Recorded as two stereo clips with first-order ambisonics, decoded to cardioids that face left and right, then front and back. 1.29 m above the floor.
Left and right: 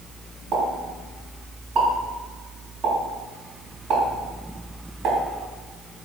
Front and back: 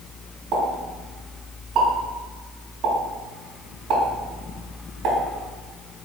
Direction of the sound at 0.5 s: 140° right.